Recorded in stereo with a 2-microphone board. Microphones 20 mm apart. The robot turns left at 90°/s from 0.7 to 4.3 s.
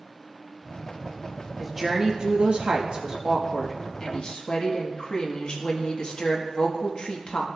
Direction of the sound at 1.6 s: Straight ahead.